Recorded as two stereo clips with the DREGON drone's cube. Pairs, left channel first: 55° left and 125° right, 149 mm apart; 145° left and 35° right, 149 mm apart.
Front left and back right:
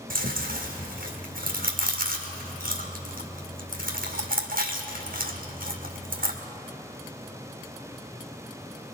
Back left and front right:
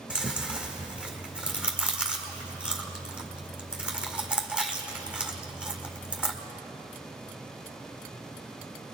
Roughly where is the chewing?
Behind right.